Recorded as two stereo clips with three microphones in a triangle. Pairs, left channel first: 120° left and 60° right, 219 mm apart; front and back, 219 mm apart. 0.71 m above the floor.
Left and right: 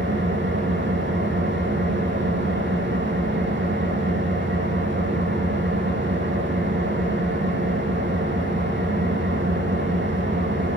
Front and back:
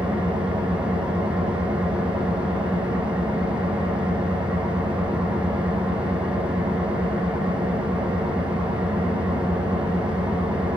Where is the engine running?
95° right, 6.5 m.